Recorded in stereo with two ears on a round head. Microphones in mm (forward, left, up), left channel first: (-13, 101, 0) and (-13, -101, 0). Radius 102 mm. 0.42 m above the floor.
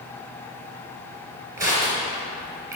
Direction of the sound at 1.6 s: 15° right (ahead or behind).